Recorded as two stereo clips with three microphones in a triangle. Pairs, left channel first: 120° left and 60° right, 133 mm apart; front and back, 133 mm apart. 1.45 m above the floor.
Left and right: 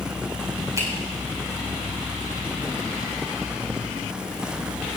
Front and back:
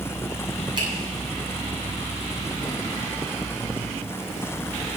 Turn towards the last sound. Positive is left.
turn(degrees=-130)